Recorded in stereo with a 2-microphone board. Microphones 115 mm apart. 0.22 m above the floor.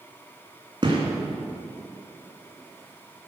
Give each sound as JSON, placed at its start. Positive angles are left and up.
{"t": 0.8, "sound": "a gunshot", "side_deg": -45, "distance_m": 3.0}